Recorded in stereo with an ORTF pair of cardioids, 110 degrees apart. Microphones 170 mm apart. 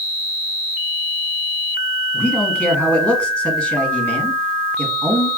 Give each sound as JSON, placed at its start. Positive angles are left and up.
{"t": 2.1, "sound": "a man speaking", "azimuth_deg": 5, "distance_m": 1.1}